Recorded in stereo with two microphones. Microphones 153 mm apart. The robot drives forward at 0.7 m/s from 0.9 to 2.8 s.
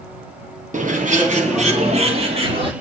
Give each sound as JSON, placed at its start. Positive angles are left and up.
{"t": 0.7, "sound": "a bird", "side_deg": -60, "distance_m": 1.3}